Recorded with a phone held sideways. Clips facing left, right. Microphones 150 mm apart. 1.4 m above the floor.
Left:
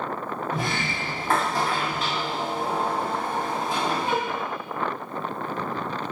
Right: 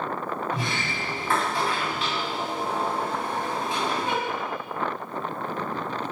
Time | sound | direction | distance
0.5 | a sliding door | 45° left (ahead or behind) | 2.5 m